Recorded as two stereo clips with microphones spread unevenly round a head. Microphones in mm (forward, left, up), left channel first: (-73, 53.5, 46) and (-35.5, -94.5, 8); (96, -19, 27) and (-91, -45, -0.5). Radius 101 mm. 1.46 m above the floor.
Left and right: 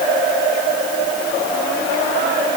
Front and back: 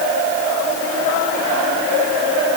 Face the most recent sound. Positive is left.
No sound to turn to.